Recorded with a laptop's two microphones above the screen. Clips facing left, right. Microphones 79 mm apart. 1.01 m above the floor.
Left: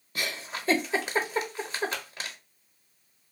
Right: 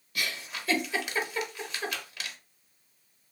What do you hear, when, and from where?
0.1 s a giggle: 35° left (ahead or behind), 0.6 m